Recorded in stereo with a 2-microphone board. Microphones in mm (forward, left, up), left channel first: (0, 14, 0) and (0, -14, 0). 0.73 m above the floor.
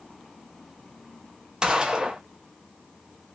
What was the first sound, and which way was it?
A gunshot, 25° right (ahead or behind).